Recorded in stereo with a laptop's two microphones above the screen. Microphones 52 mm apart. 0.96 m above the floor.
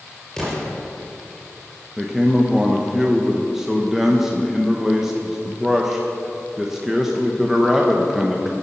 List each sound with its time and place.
0.4 s an explosion: 10° left (ahead or behind), 4.5 m
2.0 s a man speaking: 10° right (ahead or behind), 0.9 m